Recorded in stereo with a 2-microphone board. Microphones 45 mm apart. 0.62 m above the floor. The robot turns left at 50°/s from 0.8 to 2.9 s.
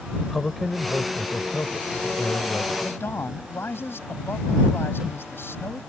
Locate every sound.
0.2 s a man speaking: 175° left; by 3.0 s 70° left
2.8 s a man speaking: 55° left (ahead or behind); by 5.8 s 60° left (ahead or behind)